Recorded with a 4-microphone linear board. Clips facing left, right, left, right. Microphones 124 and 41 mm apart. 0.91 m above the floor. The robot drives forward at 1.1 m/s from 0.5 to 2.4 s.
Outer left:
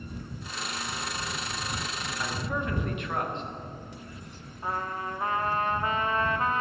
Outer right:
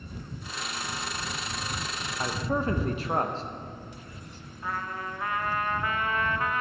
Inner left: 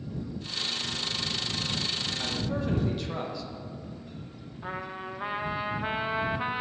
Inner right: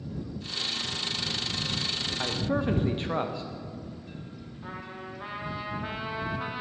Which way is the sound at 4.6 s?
30° left (ahead or behind).